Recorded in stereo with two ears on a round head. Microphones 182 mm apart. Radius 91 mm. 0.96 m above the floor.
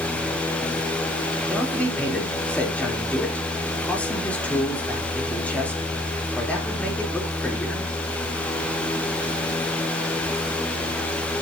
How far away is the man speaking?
About 3 m.